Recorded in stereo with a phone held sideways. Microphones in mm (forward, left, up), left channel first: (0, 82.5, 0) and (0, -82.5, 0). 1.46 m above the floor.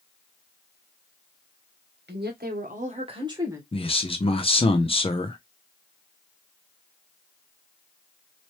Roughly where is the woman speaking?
Right.